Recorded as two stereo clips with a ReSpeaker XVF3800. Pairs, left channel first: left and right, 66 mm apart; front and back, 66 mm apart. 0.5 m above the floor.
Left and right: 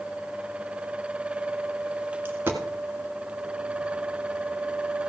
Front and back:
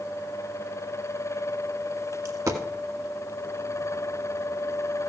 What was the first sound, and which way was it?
A dropped coin, 145° right.